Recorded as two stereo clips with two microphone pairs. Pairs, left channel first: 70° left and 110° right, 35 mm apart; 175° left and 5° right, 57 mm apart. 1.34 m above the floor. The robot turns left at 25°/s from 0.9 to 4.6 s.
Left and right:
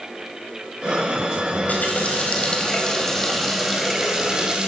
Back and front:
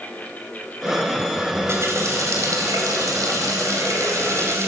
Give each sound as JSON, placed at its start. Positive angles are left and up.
{"t": 1.5, "sound": "a running tap", "azimuth_deg": 40, "distance_m": 4.0}